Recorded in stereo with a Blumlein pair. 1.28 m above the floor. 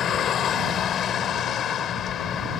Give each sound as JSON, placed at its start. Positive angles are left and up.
{"t": 0.0, "sound": "a vehicle", "azimuth_deg": 25}